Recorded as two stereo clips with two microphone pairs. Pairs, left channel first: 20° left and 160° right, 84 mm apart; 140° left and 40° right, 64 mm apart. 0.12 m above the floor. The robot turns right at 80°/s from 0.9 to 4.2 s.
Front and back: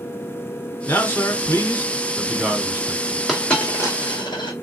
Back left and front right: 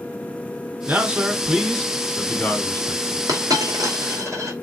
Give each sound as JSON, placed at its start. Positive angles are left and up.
{"t": 0.9, "sound": "a man speaking", "azimuth_deg": 0, "distance_m": 1.4}
{"t": 3.3, "sound": "a dropped coin", "azimuth_deg": -70, "distance_m": 2.5}